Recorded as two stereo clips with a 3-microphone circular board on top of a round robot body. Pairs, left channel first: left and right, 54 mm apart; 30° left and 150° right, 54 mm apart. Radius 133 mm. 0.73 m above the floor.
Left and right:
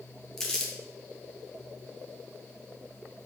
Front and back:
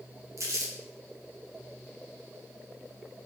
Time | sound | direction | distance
0.4 | crumpling | 170° left | 1.0 m